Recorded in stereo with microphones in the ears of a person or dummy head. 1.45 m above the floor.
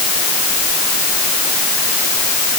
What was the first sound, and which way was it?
Only background noise.